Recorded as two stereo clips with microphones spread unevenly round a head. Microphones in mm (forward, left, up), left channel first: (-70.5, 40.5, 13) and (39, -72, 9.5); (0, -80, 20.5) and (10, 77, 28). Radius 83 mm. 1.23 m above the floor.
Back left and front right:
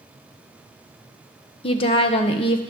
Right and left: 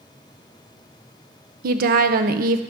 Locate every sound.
1.6 s a woman speaking: 80° left, 0.7 m